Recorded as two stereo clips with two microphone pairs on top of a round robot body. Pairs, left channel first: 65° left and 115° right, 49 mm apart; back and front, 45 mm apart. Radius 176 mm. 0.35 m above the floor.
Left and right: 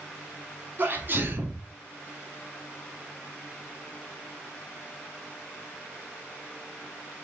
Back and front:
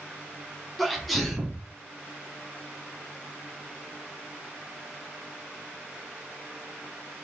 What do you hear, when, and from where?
0.8 s a sneeze: 90° right, 1.8 m